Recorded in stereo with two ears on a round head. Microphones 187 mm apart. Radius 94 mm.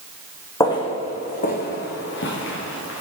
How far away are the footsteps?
About 2 m.